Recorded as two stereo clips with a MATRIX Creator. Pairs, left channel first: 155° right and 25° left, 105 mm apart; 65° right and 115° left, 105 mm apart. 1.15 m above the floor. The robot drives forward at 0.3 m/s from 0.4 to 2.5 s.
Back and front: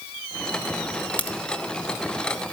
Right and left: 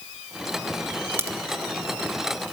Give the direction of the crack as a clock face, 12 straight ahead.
7 o'clock.